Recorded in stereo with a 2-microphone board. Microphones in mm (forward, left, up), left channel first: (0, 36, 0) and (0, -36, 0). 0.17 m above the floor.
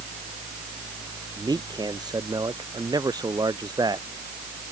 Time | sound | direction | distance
1.4 | a man speaking | 80° right | ?